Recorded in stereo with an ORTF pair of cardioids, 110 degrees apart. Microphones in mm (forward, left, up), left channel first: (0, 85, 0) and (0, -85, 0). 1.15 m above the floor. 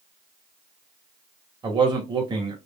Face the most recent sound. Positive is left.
turn(degrees=-30)